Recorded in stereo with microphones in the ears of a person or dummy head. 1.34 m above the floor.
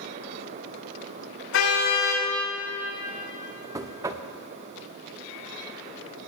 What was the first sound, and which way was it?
A car horn, 65° left (ahead or behind).